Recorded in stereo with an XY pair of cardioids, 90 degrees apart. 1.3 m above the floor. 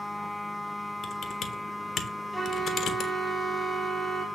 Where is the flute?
5° right, 1.7 m.